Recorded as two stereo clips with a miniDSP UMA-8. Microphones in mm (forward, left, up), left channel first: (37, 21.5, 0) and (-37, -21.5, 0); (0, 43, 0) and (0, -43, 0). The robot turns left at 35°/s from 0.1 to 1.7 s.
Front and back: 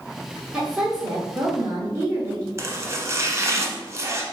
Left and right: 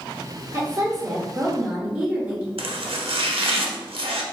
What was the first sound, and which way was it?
A woman speaking, 95° right.